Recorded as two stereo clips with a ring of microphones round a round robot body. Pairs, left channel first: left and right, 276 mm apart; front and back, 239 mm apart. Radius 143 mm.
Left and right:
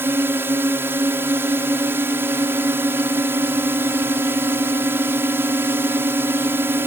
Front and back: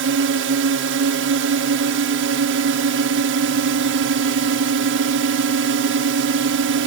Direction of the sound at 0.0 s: 170° right.